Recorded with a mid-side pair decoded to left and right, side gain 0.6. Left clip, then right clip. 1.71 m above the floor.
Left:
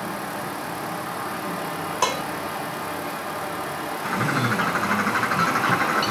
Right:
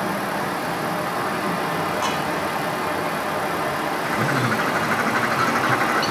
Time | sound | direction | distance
0.0 | a fan | 30° right | 1.8 m
2.0 | dishes clattering | 50° left | 5 m
4.0 | a bird | 5° left | 5 m